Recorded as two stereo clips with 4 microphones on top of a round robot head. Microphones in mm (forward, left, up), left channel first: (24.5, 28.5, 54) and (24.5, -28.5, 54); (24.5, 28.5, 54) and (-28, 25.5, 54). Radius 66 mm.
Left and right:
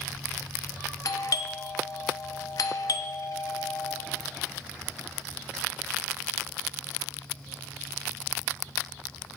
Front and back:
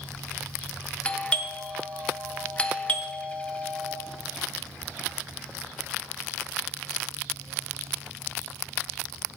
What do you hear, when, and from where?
1.1 s a doorbell: 70° left, 0.8 m